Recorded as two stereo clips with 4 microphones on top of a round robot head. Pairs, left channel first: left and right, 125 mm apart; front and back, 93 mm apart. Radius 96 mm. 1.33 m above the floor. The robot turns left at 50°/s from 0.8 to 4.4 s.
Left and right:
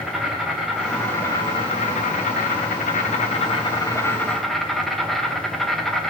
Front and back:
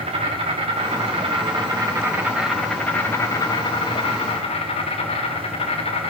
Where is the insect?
Straight behind, 4 m; by 6.1 s straight ahead, 4 m.